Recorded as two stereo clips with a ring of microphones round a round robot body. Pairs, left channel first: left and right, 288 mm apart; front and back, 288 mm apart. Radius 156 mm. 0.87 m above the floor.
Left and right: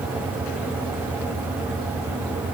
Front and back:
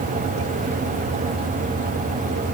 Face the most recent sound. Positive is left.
No sound to turn to.